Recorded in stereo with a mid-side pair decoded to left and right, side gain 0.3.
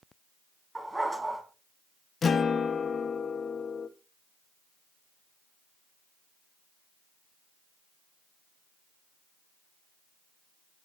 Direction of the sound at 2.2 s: 60° left.